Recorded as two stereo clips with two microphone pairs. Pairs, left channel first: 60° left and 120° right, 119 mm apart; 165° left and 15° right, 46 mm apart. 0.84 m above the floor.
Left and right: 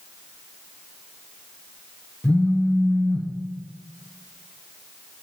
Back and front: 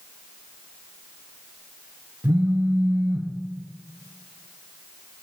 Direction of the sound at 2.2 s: 10° right.